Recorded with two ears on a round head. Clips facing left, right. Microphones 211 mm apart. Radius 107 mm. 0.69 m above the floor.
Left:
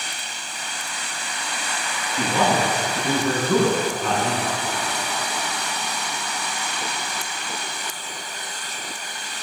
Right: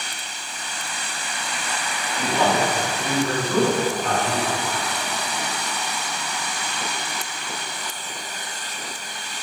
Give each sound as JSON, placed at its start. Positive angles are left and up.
{"t": 2.2, "sound": "a man speaking", "side_deg": 80, "distance_m": 8.0}